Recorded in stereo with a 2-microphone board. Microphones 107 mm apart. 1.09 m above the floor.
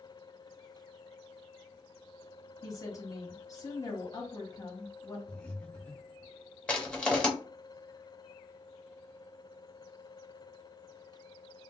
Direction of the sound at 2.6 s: 30° left (ahead or behind).